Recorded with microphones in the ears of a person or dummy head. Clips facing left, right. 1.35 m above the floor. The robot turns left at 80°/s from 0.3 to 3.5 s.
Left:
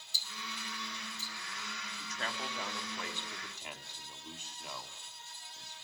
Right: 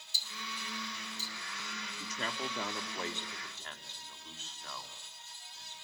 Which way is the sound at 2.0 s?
70° right (ahead or behind).